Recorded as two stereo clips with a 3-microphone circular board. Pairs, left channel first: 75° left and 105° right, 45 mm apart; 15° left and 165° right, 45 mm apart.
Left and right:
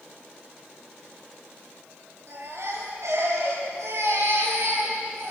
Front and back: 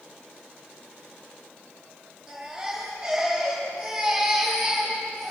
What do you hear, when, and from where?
2.3 s a baby crying: 85° right, 8 m